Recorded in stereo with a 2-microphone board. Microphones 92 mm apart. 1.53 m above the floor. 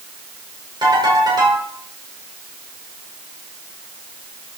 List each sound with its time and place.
0.8 s a ringtone: 50° right (ahead or behind), 4.5 m